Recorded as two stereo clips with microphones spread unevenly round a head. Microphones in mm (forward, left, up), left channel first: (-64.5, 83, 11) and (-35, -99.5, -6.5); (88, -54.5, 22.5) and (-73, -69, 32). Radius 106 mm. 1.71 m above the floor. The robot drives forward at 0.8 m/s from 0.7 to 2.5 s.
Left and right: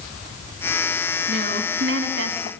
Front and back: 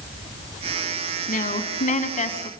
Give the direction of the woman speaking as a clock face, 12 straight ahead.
1 o'clock.